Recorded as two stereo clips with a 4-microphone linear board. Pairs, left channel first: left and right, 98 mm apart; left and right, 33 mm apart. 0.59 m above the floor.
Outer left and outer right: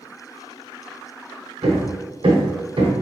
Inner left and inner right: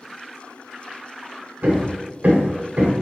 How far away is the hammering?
About 0.9 m.